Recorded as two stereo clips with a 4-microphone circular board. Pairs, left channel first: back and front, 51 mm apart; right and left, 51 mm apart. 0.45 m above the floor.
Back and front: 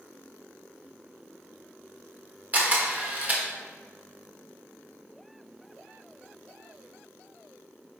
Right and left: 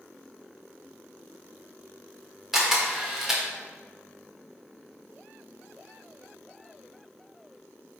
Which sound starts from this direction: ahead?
A camera shutter, at 2.5 s.